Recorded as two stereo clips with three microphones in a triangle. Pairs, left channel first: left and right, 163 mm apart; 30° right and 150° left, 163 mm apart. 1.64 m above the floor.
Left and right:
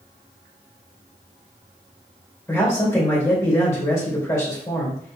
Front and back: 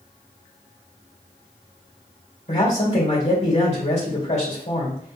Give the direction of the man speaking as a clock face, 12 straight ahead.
11 o'clock.